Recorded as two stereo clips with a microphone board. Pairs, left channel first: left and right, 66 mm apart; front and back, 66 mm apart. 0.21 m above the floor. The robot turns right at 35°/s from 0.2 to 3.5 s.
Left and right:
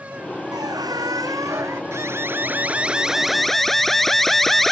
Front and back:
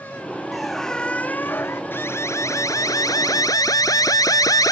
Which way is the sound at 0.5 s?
95° right.